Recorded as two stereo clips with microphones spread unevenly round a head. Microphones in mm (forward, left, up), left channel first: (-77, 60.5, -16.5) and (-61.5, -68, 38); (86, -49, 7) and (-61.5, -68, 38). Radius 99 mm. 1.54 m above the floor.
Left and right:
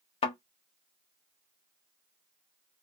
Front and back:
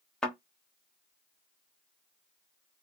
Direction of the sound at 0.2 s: 115° left.